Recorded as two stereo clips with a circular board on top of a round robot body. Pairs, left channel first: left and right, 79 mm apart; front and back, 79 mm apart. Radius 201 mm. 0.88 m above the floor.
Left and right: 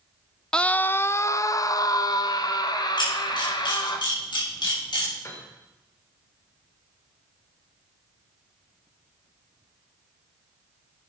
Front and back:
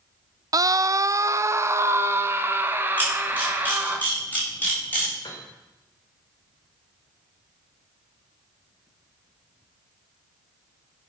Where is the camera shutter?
70° left, 6 m.